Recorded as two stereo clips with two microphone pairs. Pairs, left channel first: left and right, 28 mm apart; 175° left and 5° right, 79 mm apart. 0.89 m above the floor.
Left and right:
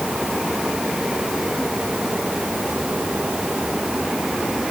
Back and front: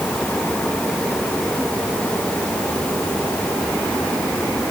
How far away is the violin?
No violin in this recording.